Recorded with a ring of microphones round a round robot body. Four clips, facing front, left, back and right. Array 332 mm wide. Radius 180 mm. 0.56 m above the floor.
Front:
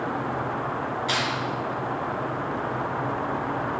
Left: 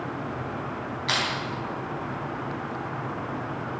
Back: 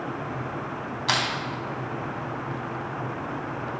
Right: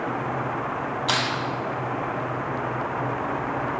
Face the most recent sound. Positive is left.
turn(degrees=-155)